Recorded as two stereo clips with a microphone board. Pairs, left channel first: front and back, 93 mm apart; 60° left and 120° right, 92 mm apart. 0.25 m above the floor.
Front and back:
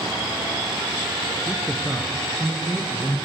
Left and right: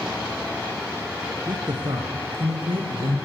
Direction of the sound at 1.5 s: 90° right.